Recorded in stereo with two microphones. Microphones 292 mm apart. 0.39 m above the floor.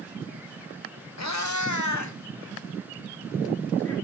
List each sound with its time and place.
1.2 s a cat meowing: 60° left (ahead or behind), 0.7 m; by 4.0 s 55° left (ahead or behind), 2.5 m